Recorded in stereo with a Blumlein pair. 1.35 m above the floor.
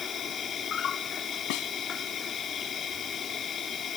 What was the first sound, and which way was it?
An insect, 25° left.